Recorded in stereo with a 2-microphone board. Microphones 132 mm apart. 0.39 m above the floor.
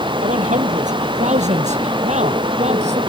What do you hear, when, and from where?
0.2 s a man speaking: 70° right (ahead or behind); by 3.0 s 60° right (ahead or behind)